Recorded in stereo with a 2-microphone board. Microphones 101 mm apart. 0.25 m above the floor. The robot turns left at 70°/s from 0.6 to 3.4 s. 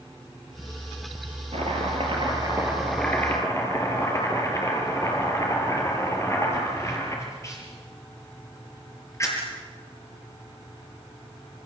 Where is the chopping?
80° right, 6.5 m; by 9.4 s 150° left, 6.5 m.